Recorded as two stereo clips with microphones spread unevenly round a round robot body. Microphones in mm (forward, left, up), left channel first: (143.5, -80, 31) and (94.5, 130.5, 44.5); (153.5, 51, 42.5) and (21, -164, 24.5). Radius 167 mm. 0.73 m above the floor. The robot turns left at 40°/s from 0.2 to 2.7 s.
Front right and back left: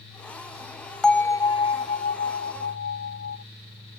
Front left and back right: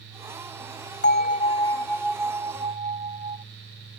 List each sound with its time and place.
1.0 s a bell: 10° left; by 3.4 s 55° right